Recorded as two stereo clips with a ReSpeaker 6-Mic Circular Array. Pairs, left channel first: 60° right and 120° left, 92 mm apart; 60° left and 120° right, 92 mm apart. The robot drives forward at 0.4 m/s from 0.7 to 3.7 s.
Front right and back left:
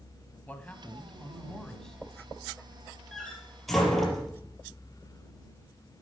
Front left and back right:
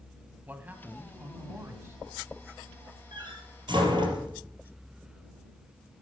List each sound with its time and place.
0.5 s a man speaking: 95° right, 1.2 m; by 2.0 s 140° right, 1.3 m
3.1 s a door slam: 145° right, 3 m